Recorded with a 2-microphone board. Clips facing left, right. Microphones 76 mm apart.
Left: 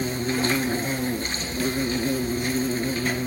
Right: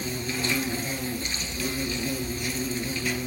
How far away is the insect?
About 0.7 m.